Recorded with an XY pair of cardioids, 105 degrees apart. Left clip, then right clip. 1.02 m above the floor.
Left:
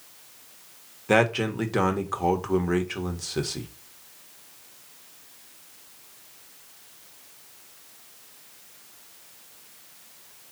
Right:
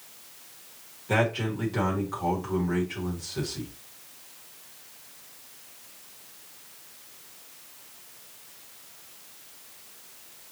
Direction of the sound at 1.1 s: 60° left.